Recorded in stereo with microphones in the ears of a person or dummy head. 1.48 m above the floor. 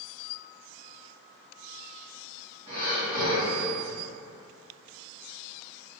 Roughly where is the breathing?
Right.